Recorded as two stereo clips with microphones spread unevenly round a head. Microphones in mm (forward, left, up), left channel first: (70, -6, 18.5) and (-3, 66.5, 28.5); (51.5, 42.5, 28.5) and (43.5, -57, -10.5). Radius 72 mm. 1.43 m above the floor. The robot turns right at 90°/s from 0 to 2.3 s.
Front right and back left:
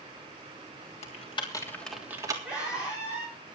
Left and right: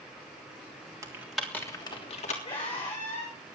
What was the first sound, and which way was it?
Typing on a keyboard, 35° right.